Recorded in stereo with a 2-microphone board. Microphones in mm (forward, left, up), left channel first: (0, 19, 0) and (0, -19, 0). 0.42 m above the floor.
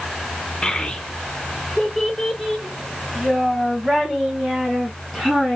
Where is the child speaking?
20° left (ahead or behind), 0.6 m; by 5.6 s 5° right (ahead or behind), 3 m.